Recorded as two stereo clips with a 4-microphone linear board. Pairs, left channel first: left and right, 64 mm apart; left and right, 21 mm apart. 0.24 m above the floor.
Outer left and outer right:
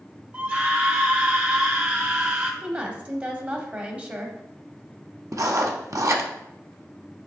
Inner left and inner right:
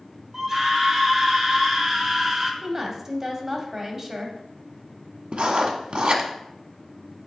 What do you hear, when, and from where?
0.3 s a scream: 30° right (ahead or behind), 1.4 m
2.6 s a woman speaking: 20° right (ahead or behind), 1.0 m
5.3 s writing: 55° right (ahead or behind), 0.8 m